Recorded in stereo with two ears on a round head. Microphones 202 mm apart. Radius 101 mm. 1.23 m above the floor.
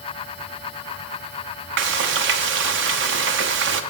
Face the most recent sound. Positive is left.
turn(degrees=-55)  # may be behind; listen again after turning